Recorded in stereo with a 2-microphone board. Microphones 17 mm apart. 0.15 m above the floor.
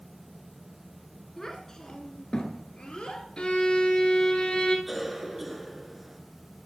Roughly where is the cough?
Centre.